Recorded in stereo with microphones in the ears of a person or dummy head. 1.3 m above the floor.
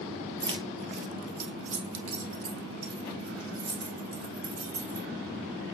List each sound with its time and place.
0.4 s keys jangling: 20° right (ahead or behind), 0.7 m; by 5.1 s 85° right, 4 m